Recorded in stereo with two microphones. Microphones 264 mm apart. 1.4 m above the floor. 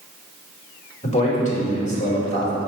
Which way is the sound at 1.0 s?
25° left (ahead or behind).